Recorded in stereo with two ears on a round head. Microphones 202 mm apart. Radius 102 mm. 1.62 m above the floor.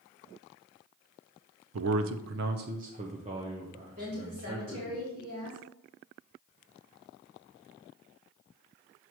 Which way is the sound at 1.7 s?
65° right (ahead or behind).